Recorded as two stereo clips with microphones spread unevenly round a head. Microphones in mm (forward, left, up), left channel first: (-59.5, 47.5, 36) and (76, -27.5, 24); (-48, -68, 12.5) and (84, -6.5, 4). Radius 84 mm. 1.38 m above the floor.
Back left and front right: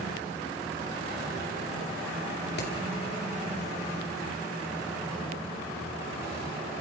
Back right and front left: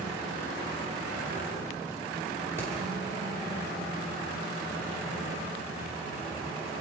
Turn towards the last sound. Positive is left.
turn(degrees=130)